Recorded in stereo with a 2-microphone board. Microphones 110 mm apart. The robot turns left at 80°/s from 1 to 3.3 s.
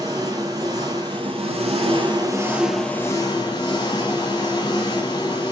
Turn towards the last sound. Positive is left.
turn(degrees=135)